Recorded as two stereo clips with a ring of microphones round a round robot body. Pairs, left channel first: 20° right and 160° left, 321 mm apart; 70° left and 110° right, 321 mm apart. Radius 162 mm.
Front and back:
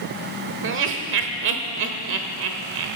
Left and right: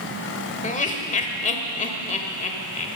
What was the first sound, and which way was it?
Laughter, 125° left.